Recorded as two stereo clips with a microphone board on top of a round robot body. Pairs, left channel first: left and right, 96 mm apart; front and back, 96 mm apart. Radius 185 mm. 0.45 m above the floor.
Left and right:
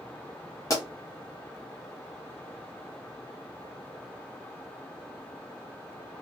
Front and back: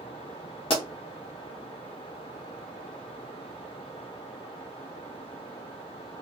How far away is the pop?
About 1.0 m.